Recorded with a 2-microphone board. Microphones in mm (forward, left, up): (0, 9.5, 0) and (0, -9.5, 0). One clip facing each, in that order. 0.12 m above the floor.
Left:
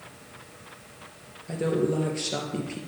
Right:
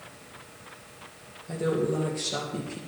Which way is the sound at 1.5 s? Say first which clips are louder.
Left 1 dB; 30° left (ahead or behind).